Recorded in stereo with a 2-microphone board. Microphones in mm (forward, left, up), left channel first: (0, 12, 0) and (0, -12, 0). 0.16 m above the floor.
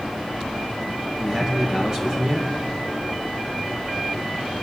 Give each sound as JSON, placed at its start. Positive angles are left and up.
{"t": 1.2, "sound": "a man speaking", "side_deg": -35, "distance_m": 2.5}